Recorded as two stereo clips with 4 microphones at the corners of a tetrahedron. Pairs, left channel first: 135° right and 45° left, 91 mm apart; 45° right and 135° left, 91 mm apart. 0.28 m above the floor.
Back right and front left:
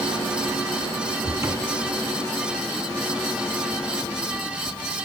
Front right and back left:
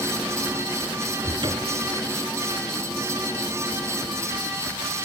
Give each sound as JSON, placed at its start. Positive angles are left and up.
{"t": 1.2, "sound": "a cupboard door", "azimuth_deg": 100, "distance_m": 1.4}